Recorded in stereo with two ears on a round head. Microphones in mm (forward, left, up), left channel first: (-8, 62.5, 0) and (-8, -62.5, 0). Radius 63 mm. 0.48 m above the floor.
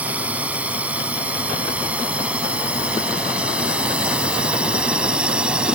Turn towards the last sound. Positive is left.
turn(degrees=-5)  # may be behind; listen again after turning